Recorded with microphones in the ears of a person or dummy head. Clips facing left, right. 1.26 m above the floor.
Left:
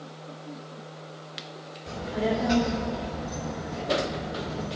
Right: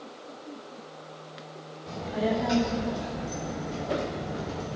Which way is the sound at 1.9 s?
10° left (ahead or behind).